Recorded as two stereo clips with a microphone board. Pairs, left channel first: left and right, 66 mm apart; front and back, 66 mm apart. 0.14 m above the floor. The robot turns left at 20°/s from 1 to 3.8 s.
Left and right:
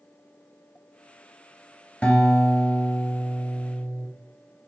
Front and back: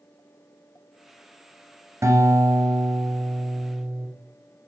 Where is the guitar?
160° left, 2.5 m; by 4.1 s 120° left, 2.5 m.